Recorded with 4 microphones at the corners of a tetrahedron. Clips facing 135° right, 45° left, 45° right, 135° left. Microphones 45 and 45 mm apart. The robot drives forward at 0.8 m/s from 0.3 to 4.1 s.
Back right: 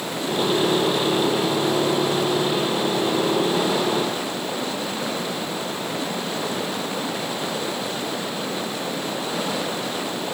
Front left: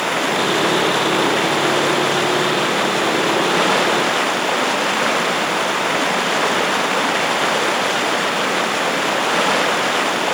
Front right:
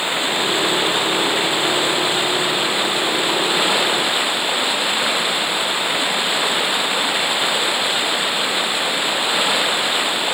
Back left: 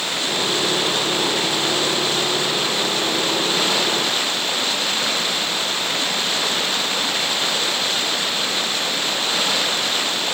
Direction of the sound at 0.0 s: 25° left.